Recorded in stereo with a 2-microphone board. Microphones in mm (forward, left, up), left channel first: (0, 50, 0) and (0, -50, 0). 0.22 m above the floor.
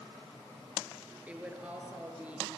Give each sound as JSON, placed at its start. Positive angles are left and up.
{"t": 1.3, "sound": "a woman speaking", "side_deg": -15, "distance_m": 4.0}